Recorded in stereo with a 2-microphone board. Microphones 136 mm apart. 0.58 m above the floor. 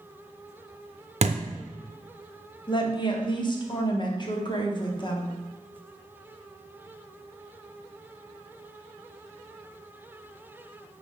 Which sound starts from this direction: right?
A thud, at 1.2 s.